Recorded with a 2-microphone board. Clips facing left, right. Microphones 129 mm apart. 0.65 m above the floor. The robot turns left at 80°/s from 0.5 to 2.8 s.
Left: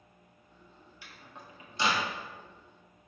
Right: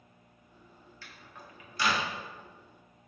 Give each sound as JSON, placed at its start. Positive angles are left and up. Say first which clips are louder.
{"t": 1.0, "sound": "a microwave", "louder": "left 1 dB", "side_deg": 15, "distance_m": 0.5}